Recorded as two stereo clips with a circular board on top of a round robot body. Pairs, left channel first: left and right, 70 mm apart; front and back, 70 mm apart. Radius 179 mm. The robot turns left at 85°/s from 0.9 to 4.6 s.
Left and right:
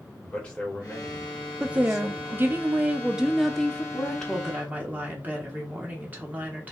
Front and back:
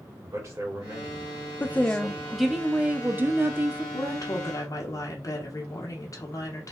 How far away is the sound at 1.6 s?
About 0.6 m.